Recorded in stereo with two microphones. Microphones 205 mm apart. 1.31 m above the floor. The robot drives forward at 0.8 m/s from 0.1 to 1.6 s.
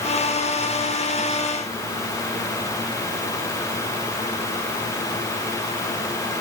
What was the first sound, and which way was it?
Only background noise.